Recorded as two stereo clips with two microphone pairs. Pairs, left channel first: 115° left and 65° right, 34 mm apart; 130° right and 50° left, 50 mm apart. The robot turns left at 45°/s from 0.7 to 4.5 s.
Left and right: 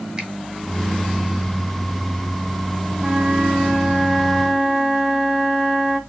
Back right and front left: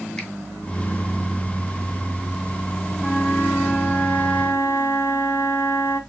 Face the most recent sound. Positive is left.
turn(degrees=-130)